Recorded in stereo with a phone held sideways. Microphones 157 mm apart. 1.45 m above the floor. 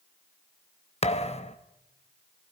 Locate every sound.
1.0 s a thud: 40° left (ahead or behind), 0.9 m